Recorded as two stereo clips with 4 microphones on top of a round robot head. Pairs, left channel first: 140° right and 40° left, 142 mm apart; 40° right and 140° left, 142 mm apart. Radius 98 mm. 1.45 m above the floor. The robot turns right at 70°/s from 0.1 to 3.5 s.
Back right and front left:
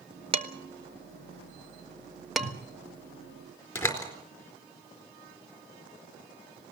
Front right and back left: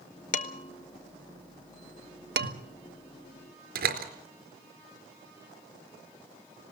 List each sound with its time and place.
0.3 s dishes clattering: 10° right, 1.2 m; by 2.5 s 145° left, 1.2 m
2.4 s a whoosh: 130° left, 2.5 m; by 2.6 s 145° left, 2.5 m
3.8 s a door slam: 150° left, 4 m